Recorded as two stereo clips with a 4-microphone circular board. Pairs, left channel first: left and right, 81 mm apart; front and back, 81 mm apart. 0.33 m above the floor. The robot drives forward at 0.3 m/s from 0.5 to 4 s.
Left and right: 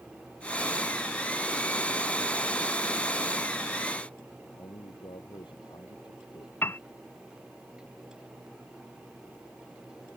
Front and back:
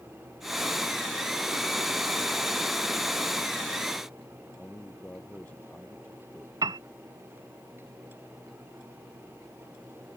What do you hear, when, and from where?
4.3 s a man speaking: 70° left
6.6 s a piano: 150° left